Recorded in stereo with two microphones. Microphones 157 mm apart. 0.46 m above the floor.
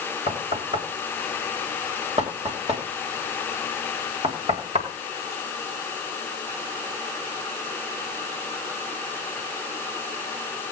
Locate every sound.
0.3 s knocking: 45° right (ahead or behind), 2 m